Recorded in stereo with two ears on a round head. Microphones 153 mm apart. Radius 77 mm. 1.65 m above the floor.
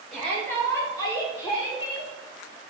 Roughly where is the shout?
Centre.